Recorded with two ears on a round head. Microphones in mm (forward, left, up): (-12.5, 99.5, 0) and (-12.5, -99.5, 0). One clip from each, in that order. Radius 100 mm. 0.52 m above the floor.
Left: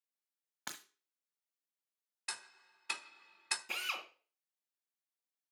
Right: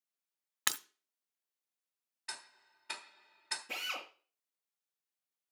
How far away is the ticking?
About 1.1 m.